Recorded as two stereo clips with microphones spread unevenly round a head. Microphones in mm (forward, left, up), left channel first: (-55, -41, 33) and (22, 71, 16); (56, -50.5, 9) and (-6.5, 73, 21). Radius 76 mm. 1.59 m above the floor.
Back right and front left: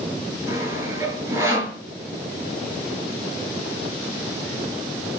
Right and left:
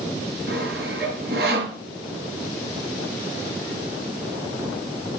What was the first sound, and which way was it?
Sawing, 130° left.